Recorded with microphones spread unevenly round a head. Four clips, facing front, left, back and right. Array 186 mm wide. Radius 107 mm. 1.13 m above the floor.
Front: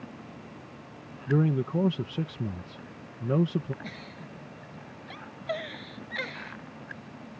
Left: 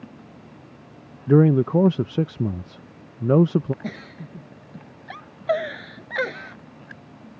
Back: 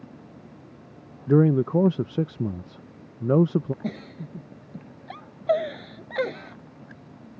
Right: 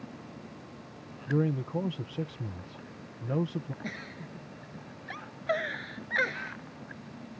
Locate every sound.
1.3 s a man speaking: 100° left
3.8 s a giggle: 155° left